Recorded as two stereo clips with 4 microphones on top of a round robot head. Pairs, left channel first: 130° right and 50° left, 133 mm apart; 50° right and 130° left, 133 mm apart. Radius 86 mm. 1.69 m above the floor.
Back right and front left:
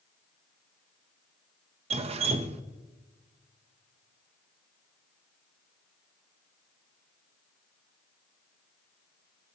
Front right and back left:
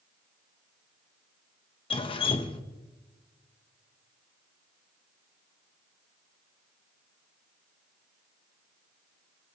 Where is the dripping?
5° left, 0.6 m.